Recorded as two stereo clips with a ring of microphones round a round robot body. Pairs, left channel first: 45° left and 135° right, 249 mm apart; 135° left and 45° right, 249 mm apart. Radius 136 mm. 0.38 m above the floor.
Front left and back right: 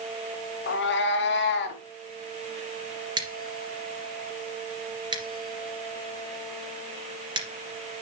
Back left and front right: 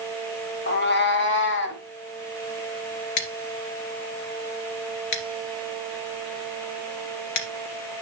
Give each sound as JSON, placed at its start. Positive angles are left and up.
{"t": 0.7, "sound": "a cat meowing", "azimuth_deg": 85, "distance_m": 1.2}
{"t": 3.2, "sound": "scissors", "azimuth_deg": 150, "distance_m": 2.5}